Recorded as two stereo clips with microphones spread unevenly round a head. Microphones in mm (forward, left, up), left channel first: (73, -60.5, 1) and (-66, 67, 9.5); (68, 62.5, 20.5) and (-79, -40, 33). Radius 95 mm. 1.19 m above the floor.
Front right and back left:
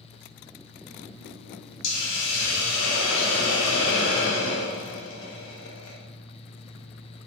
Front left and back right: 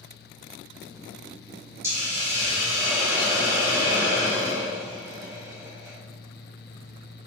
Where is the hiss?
70° right, 0.6 m.